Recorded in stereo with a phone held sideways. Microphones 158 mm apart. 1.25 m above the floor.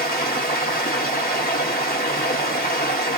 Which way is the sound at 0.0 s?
80° left.